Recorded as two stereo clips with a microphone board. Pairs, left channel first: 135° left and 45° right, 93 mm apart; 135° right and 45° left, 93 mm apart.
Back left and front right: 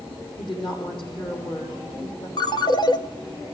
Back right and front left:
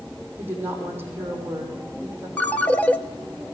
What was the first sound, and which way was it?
A woman speaking, 110° left.